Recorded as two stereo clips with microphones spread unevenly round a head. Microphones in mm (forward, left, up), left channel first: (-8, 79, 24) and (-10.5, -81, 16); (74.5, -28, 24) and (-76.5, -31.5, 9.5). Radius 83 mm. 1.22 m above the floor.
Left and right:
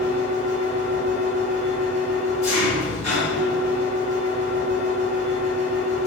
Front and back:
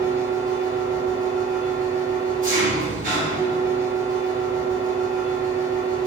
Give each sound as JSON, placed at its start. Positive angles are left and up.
{"t": 0.0, "sound": "an engine running", "azimuth_deg": 135, "distance_m": 1.5}